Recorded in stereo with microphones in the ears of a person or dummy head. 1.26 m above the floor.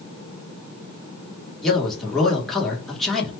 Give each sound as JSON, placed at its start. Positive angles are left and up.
{"t": 1.6, "sound": "a man speaking", "side_deg": -5, "distance_m": 1.2}